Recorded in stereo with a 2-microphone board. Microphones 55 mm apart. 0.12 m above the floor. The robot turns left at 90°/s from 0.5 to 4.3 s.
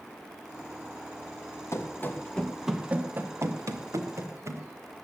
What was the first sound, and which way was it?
Running footsteps, 55° left (ahead or behind).